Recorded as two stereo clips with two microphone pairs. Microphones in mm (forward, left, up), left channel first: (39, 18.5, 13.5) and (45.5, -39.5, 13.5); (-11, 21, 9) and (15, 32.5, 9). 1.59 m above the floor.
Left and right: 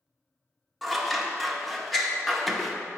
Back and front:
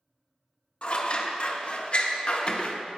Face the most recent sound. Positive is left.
turn(degrees=-170)